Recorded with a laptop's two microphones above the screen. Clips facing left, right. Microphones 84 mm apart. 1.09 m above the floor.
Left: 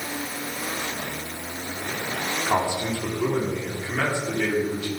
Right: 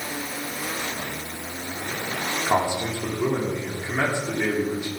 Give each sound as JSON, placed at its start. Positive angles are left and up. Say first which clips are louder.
{"t": 2.5, "sound": "a man speaking", "louder": "right 1 dB", "side_deg": -20, "distance_m": 3.0}